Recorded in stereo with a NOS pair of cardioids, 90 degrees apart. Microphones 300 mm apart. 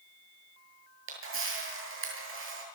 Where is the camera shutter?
45° right, 8.5 m.